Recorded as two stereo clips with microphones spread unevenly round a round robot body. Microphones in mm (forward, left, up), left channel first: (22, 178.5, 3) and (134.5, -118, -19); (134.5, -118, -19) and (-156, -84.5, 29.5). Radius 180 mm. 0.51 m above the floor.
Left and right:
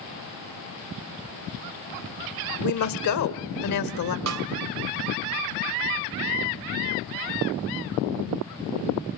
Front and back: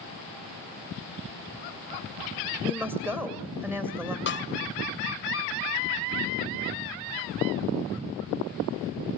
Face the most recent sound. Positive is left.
turn(degrees=-45)